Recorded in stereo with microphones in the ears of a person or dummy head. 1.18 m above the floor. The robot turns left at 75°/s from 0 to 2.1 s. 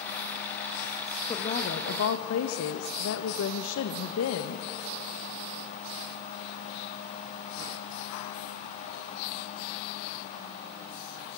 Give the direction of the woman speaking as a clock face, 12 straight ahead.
7 o'clock.